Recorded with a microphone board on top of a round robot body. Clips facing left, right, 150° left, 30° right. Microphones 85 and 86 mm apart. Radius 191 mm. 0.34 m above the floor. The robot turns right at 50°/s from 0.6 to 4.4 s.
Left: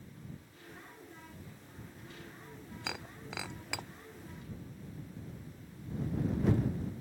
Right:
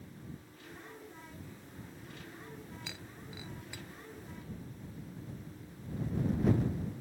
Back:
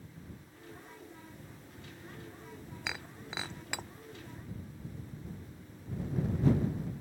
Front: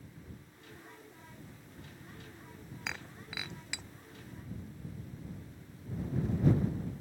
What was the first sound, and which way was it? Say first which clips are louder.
Breaking glass: left 5 dB, back 1 dB; 60° left.